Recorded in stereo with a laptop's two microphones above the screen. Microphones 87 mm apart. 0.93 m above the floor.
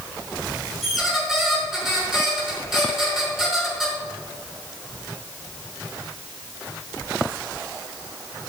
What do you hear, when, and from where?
0.8 s a squeak: 5° right (ahead or behind), 5.5 m